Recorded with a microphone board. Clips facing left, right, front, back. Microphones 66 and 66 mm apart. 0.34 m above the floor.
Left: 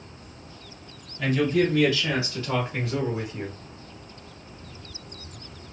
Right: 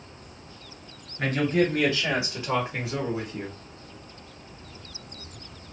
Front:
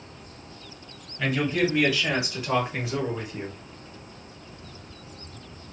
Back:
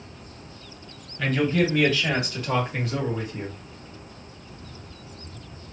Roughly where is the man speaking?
Right.